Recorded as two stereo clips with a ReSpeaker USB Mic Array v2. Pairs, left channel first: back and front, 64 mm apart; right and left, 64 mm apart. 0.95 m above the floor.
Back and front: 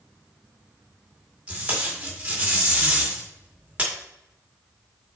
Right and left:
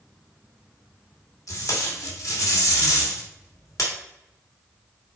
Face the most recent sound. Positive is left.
turn(degrees=-70)